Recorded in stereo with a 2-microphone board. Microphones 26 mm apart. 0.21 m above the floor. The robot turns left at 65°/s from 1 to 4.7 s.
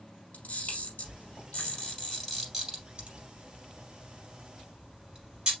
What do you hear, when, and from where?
0.3 s a camera shutter: 75° left (ahead or behind), 3 m; by 5.5 s 35° right (ahead or behind), 3 m